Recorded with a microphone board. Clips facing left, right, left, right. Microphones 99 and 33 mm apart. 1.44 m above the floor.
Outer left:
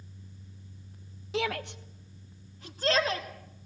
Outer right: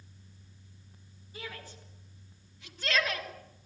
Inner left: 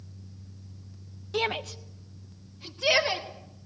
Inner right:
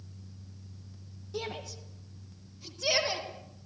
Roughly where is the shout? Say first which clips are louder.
Outer left 13 dB, inner left 9 dB; left.